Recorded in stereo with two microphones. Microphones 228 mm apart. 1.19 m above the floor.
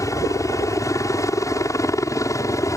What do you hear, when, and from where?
0.0 s a helicopter: 15° left (ahead or behind)